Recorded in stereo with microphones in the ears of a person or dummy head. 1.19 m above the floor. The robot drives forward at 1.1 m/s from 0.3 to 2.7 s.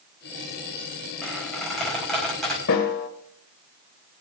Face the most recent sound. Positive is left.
turn(degrees=70)  # may be behind; listen again after turning